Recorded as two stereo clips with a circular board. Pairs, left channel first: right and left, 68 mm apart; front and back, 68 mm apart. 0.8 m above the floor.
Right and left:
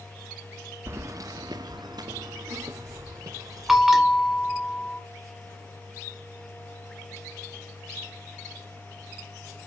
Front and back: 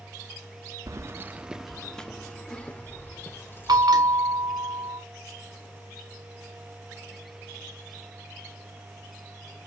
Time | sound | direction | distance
0.9 | keys jangling | 140° left | 0.6 m
3.7 | a bell | 175° left | 1.3 m